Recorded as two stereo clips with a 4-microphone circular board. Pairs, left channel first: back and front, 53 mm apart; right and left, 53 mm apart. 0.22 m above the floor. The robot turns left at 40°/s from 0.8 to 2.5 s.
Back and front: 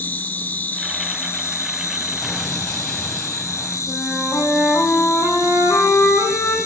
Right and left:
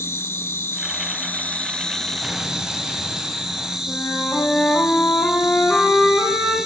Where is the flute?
160° right, 6 m.